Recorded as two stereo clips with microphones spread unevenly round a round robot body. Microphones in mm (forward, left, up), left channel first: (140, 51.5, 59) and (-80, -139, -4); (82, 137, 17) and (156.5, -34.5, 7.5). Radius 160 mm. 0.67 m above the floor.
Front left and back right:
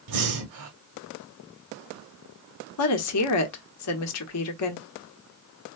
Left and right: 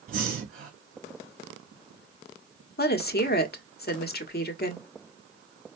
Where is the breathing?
125° right, 1.6 m.